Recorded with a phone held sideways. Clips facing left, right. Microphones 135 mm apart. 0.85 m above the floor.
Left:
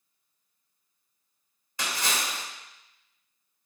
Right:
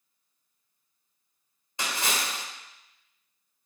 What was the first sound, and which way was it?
A splash, 25° right (ahead or behind).